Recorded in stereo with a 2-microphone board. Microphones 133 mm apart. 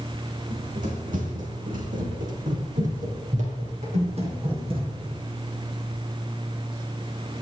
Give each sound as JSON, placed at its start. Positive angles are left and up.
{"t": 0.5, "sound": "running footsteps", "side_deg": -60, "distance_m": 5.5}